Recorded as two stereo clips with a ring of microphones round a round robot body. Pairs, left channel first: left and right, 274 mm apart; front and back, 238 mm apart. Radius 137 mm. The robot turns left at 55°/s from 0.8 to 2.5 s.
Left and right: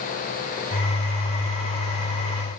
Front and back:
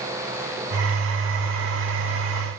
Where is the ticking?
No ticking in this recording.